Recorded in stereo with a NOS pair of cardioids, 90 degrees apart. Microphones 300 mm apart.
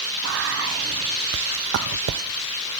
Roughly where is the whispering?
Ahead right.